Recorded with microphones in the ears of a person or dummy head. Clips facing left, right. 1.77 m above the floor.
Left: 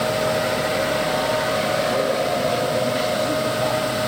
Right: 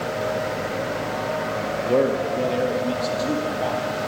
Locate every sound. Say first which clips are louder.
1.9 s a man speaking: right 1 dB; 45° right (ahead or behind), 0.9 m; by 3.9 s 10° right (ahead or behind), 1.9 m